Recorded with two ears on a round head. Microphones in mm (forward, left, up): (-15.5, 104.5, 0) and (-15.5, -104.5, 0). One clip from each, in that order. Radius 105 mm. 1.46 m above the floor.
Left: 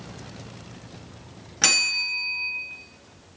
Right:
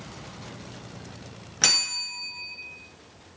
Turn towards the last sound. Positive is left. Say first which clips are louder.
# left 2 dB
turn(degrees=-5)  # may be behind; listen again after turning